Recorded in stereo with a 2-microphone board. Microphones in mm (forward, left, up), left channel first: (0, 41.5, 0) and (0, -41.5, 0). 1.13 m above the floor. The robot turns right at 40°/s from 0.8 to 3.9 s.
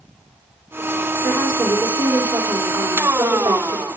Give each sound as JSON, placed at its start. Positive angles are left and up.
{"t": 1.2, "sound": "a woman speaking", "azimuth_deg": 165, "distance_m": 5.0}